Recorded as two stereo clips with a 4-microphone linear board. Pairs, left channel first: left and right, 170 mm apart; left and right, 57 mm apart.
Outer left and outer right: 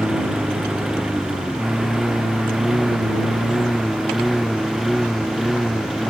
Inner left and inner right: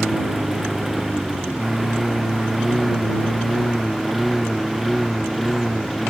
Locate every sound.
0.0 s a lawn mower: 5° right (ahead or behind); by 6.1 s centre (ahead or behind)